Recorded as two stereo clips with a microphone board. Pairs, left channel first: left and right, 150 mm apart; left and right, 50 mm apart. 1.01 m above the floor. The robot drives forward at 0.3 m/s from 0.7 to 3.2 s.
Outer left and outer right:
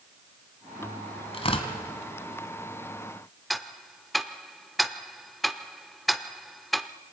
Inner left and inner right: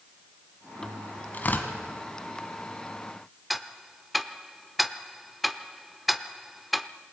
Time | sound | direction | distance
1.3 | tearing paper | 40° left (ahead or behind) | 1.9 m
3.5 | ticking | centre (ahead or behind) | 0.6 m